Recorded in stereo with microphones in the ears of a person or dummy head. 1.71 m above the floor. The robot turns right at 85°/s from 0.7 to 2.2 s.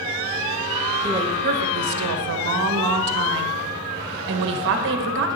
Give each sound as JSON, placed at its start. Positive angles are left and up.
{"t": 1.0, "sound": "a woman speaking", "azimuth_deg": -165, "distance_m": 0.9}